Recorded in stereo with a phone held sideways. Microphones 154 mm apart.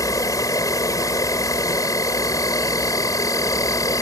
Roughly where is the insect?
Left.